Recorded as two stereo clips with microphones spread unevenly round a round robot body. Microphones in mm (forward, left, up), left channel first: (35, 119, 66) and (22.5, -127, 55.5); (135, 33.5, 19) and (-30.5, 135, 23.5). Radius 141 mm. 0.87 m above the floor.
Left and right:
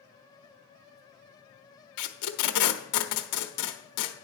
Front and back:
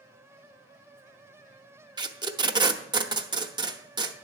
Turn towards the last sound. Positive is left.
turn(degrees=80)